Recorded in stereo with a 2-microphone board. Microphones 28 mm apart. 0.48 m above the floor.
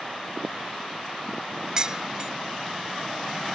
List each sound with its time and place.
1.8 s dishes clattering: 25° right (ahead or behind)